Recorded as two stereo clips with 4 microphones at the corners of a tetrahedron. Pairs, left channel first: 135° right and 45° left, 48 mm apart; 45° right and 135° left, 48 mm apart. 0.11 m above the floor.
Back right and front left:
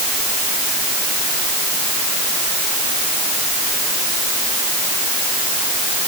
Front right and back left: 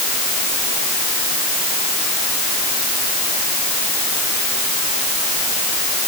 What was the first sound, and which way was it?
Only background noise.